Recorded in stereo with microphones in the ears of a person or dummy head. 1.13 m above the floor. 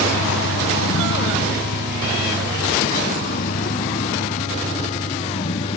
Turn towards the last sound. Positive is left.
turn(degrees=35)  # may be behind; listen again after turning